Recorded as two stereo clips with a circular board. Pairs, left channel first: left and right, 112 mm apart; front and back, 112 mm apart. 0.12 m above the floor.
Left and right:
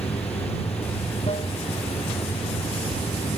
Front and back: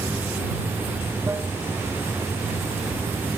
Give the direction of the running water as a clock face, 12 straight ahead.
8 o'clock.